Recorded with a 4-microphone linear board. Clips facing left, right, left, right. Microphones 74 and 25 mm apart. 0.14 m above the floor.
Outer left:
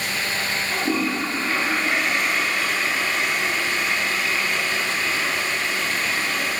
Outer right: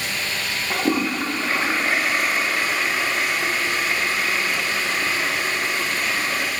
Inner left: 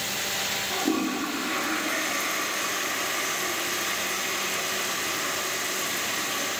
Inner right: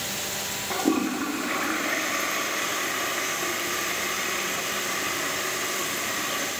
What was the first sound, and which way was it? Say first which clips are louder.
A toilet flushing: outer right 3 dB, inner right 4 dB; 35° right (ahead or behind).